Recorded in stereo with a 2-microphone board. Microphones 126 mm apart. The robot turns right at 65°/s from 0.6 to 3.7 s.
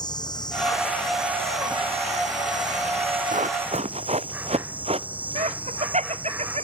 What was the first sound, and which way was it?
An insect, 145° left.